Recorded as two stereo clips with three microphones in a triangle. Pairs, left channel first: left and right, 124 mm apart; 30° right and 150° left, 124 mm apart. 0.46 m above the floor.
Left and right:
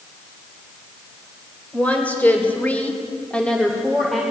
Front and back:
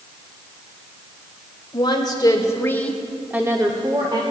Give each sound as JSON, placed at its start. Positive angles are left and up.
{"t": 1.7, "sound": "a woman speaking", "azimuth_deg": 15, "distance_m": 2.0}